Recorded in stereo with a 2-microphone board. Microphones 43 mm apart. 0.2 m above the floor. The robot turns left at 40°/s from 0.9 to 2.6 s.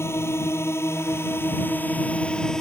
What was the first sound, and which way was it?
A drone, 75° left (ahead or behind).